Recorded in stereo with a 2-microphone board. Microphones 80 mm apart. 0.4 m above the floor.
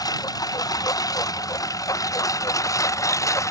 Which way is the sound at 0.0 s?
50° left (ahead or behind).